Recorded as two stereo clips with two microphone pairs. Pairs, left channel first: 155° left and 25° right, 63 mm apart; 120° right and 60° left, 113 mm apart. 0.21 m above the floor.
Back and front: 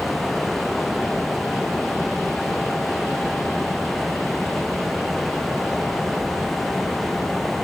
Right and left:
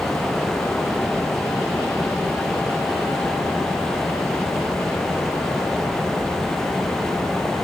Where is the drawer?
No drawer in this recording.